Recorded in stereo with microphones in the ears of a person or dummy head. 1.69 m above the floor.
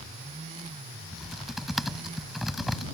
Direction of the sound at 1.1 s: Centre (ahead or behind).